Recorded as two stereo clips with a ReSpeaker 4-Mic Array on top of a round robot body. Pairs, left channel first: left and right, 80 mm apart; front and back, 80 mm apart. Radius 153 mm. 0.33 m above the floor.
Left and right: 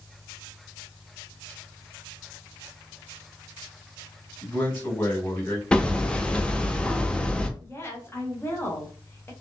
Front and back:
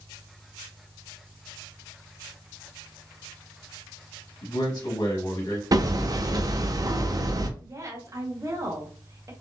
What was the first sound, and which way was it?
A man speaking, 25° left.